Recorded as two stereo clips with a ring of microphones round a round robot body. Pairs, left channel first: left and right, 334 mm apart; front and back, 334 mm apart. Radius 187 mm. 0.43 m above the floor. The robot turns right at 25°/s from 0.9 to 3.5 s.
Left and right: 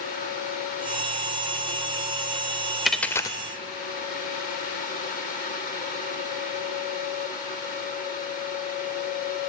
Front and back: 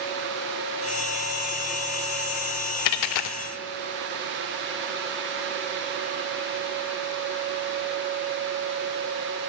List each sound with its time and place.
2.9 s a dropped coin: straight ahead, 0.6 m; by 3.4 s 10° left, 0.6 m